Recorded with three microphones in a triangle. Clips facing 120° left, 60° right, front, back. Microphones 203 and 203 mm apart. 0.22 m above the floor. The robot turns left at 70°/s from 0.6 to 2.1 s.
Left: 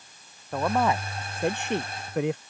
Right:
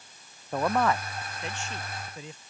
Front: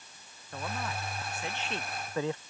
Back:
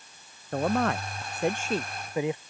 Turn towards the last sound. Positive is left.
turn(degrees=105)